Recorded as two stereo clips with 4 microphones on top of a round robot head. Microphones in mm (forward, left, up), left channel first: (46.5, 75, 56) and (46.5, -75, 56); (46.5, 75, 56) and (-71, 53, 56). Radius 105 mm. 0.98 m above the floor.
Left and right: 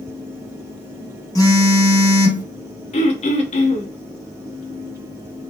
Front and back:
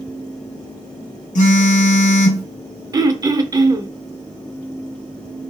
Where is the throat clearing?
130° left, 0.6 m.